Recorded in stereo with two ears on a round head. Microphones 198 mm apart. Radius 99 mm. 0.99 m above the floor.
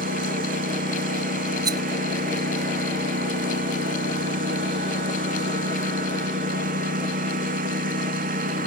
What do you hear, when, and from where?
0.0 s a lawn mower: 40° right (ahead or behind)
1.6 s a rattle: 20° right (ahead or behind)